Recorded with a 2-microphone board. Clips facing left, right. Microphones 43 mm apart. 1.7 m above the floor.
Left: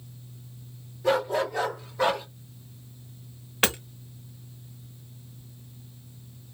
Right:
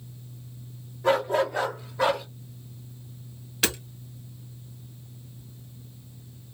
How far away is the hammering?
About 0.8 m.